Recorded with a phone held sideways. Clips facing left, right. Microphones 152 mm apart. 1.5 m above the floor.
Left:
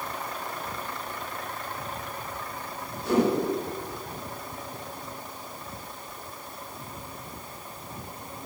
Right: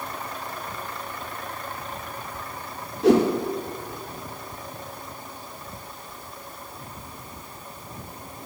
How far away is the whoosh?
About 4.5 m.